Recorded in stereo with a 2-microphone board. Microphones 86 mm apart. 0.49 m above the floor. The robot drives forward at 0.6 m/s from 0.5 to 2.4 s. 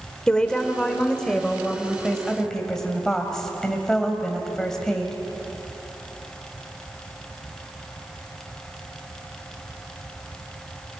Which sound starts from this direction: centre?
A woman speaking, at 0.3 s.